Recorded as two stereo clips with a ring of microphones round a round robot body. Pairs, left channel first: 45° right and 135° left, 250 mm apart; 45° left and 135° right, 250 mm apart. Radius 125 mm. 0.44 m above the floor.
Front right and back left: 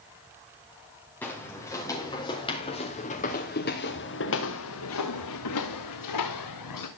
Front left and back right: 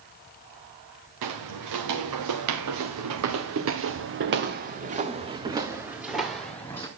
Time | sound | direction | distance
1.2 | footsteps | 125° right | 3.5 m